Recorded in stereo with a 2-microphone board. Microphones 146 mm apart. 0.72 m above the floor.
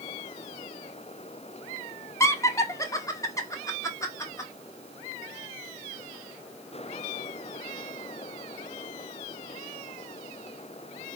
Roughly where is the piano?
I don't hear a piano.